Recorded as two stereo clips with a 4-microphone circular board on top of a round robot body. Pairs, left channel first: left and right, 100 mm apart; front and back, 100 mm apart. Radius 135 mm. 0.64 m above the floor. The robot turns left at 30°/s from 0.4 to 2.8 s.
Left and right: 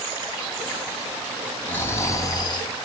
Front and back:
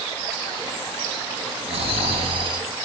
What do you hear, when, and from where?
1.7 s snoring: 165° left, 3.5 m; by 2.7 s 135° left, 3.5 m